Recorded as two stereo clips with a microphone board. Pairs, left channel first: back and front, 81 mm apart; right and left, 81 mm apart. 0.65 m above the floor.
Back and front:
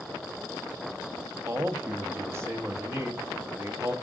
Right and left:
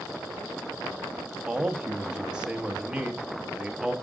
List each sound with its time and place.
1.5 s a man speaking: 20° left, 0.9 m